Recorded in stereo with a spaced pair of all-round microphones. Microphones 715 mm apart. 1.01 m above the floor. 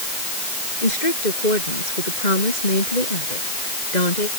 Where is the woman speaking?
85° left; by 4.3 s 75° left (ahead or behind).